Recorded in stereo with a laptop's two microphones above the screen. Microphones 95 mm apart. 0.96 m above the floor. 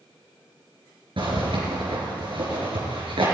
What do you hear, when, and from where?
1.2 s a zipper: 70° right (ahead or behind), 3.5 m